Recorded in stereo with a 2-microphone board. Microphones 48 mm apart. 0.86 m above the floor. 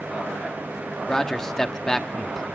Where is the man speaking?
10° left (ahead or behind), 1.2 m.